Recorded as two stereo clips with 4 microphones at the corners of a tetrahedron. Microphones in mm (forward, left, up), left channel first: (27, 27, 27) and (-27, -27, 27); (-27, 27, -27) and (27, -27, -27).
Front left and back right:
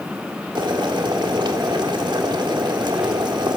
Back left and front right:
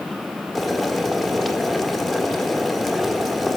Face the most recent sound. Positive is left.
turn(degrees=-135)